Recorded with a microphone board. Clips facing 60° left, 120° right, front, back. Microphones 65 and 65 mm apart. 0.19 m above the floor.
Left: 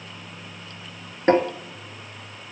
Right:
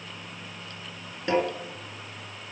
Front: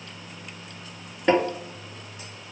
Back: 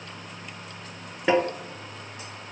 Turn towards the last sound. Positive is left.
turn(degrees=95)